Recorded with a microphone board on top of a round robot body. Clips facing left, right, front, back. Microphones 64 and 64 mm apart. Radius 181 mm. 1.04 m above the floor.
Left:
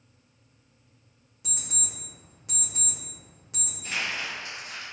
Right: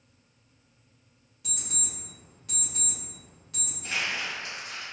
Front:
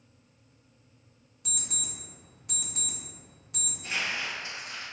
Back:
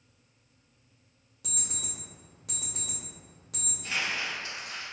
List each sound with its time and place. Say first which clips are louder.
1.4 s an alarm clock: right 1 dB, front 1 dB; 160° left, 0.6 m
3.8 s crumpling: even, even; 70° right, 1.3 m